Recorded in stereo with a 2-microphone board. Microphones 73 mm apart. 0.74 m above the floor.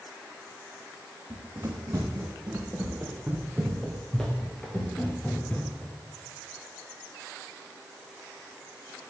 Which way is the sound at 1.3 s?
40° right (ahead or behind).